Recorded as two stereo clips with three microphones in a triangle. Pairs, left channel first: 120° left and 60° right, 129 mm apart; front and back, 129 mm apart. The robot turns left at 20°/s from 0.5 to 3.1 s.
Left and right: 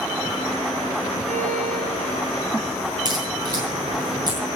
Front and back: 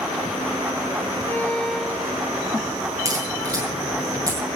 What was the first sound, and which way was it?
A violin, 75° right.